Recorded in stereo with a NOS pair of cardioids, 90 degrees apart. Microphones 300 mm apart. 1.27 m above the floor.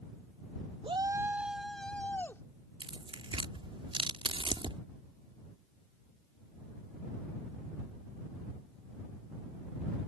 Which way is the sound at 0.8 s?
20° right.